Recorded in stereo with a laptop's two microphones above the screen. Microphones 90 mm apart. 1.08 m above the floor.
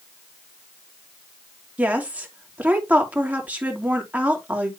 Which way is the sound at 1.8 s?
20° right (ahead or behind).